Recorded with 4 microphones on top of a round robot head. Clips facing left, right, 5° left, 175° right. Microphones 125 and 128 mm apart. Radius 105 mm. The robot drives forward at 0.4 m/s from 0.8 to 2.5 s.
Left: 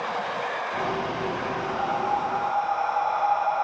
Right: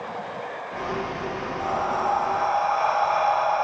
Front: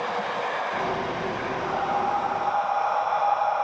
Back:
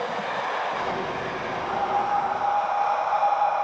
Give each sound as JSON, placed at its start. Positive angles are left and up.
{"t": 1.6, "sound": "breathing", "azimuth_deg": -75, "distance_m": 4.5}